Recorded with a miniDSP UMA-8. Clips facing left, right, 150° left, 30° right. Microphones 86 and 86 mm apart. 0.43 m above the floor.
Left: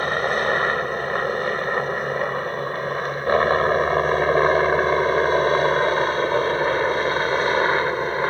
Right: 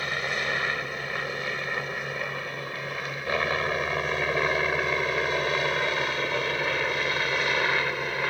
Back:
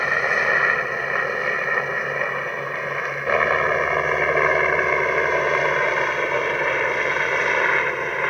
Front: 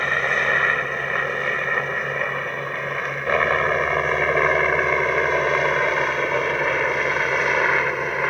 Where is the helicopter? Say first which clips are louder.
Left 9 dB, back 1 dB; 65° left; by 8.3 s 55° left.